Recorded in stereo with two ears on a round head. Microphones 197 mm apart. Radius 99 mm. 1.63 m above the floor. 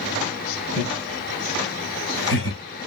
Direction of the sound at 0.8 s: 80° left.